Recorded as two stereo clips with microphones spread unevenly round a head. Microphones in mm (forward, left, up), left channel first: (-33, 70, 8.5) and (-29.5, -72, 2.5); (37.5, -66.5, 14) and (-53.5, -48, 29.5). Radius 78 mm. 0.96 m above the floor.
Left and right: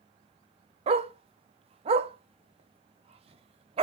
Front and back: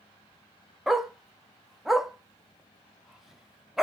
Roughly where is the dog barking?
Behind right.